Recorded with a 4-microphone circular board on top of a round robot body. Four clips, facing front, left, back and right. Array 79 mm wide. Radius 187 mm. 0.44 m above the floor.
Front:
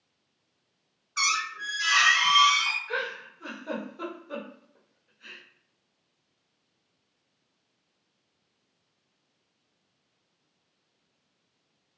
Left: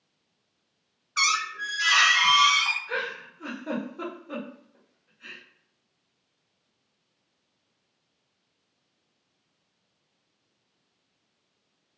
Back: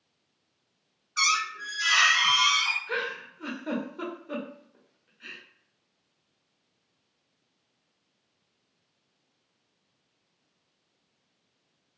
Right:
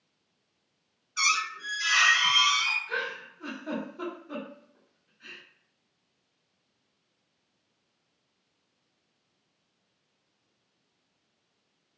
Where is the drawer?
No drawer in this recording.